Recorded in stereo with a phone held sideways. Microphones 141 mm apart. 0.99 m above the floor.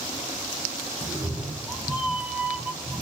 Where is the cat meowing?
5° left (ahead or behind), 3.5 m; by 3.0 s 10° right (ahead or behind), 2 m.